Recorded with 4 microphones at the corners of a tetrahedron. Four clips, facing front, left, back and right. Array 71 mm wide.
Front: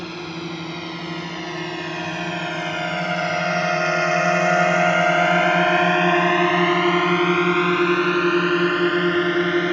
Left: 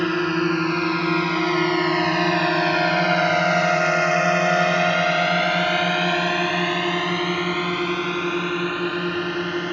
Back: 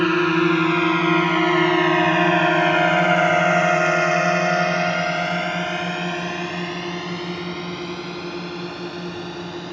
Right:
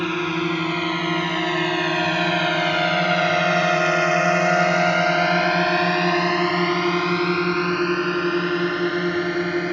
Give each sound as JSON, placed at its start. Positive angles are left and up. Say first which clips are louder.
{"t": 0.0, "sound": "a drone", "louder": "left 2 dB, back 13 dB", "azimuth_deg": 165}